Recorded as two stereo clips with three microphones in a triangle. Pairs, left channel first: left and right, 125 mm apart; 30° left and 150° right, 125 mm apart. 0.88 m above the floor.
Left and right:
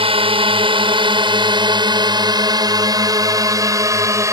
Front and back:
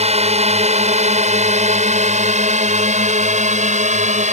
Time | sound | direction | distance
0.0 | a drone | 125° right | ?